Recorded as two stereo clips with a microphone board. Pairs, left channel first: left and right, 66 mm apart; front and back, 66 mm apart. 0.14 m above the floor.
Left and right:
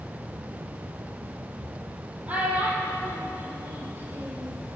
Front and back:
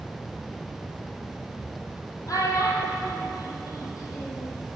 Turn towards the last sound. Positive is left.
turn(degrees=-35)